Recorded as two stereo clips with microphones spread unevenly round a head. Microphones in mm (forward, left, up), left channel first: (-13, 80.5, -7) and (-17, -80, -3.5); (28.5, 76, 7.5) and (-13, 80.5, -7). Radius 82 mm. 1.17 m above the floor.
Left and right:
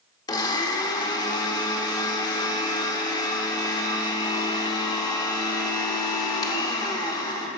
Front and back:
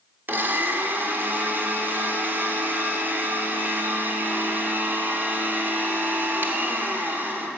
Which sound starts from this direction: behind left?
A blender, at 0.3 s.